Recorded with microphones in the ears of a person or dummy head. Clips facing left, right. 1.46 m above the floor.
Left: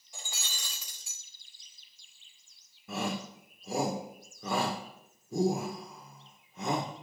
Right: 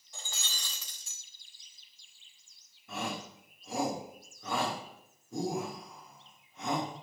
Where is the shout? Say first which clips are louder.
Left 3 dB; 60° left (ahead or behind), 1.1 m.